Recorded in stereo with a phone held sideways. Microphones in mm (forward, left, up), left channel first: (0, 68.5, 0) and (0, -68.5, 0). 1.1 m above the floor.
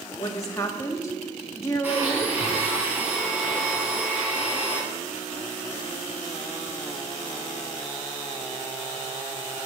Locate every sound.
0.2 s a woman speaking: 20° left (ahead or behind), 1.7 m
1.8 s a blender: 15° right (ahead or behind), 5 m